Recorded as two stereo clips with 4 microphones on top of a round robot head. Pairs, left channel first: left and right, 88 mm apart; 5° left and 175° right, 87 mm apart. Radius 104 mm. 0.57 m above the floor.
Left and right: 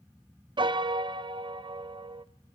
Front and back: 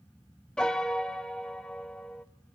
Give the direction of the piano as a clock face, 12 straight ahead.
2 o'clock.